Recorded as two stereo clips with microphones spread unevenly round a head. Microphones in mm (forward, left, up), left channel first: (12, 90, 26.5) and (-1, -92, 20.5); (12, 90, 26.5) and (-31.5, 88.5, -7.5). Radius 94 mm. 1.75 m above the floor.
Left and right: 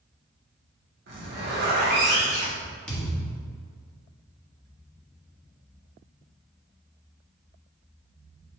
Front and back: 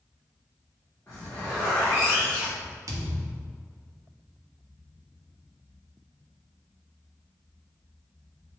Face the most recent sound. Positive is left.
turn(degrees=160)